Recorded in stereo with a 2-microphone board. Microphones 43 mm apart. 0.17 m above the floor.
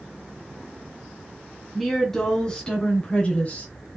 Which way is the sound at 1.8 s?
Centre (ahead or behind).